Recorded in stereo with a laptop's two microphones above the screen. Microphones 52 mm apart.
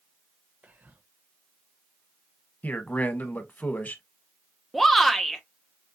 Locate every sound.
0.6 s whispering: 35° right (ahead or behind), 1.0 m
2.6 s a man speaking: 35° left (ahead or behind), 1.1 m
4.7 s a shout: centre (ahead or behind), 0.6 m